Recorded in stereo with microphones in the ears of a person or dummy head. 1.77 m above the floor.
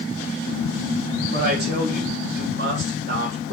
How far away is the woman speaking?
About 2.5 m.